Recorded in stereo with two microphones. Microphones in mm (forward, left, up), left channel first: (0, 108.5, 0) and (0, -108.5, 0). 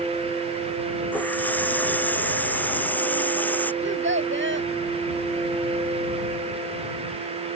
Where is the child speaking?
60° right (ahead or behind).